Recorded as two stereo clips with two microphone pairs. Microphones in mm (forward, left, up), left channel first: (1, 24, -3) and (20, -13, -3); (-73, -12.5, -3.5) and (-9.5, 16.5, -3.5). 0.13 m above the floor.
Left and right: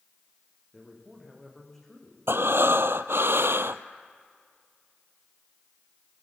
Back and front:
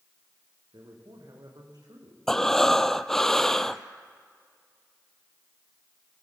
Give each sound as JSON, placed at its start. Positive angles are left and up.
{"t": 0.7, "sound": "a man speaking", "azimuth_deg": 35, "distance_m": 8.0}
{"t": 2.3, "sound": "breathing", "azimuth_deg": -75, "distance_m": 0.8}